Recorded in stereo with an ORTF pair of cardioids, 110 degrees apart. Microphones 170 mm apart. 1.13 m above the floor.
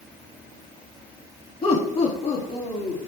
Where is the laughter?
40° left, 2 m; by 3.1 s 45° left, 3 m.